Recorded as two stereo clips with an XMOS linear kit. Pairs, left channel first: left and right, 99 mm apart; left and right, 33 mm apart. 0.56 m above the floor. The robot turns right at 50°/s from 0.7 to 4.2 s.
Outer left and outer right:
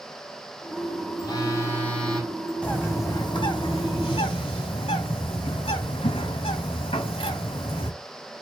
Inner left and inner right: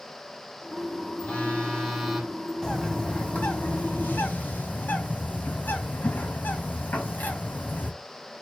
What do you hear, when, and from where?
1.2 s a phone buzzing: 125° left, 1.5 m; by 2.5 s 165° right, 1.5 m
2.6 s a bird: 15° left, 2 m; by 7.9 s 95° left, 2 m